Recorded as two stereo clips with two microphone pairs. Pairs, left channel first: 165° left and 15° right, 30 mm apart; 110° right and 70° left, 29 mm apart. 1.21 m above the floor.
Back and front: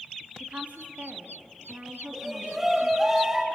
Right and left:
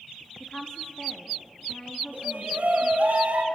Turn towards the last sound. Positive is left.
turn(degrees=60)